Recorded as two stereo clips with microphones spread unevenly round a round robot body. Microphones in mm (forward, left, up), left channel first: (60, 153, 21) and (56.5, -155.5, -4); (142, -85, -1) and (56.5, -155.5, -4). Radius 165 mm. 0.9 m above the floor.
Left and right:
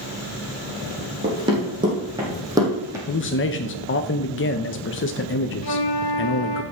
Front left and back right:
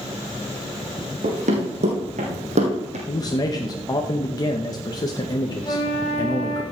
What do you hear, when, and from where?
1.2 s running footsteps: 170° right, 3.5 m; by 3.0 s 175° right, 2.5 m
3.1 s a man speaking: 65° left, 0.7 m
5.6 s a flute: 95° left, 1.8 m